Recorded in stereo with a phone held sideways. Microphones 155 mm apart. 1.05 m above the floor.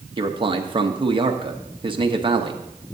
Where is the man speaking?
30° right (ahead or behind), 0.9 m.